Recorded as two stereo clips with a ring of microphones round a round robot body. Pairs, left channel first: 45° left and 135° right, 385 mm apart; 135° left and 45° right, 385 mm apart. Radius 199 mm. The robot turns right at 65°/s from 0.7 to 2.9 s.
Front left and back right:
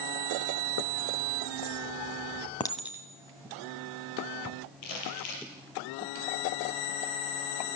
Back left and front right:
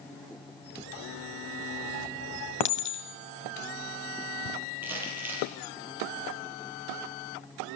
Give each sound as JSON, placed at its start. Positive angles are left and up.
{"t": 2.6, "sound": "a clink", "azimuth_deg": 120, "distance_m": 1.5}
{"t": 4.8, "sound": "crumpling", "azimuth_deg": 40, "distance_m": 6.5}